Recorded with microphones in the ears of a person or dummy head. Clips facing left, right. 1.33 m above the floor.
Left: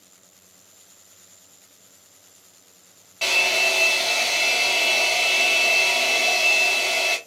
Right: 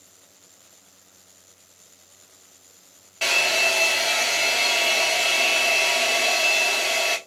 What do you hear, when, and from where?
3.2 s a hair dryer: 5° right (ahead or behind), 0.6 m